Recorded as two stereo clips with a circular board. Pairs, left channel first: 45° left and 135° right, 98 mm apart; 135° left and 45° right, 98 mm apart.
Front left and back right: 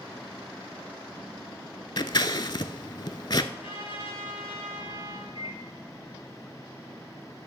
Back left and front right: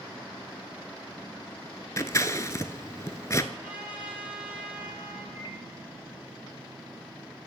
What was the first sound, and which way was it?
Scissors, 80° left.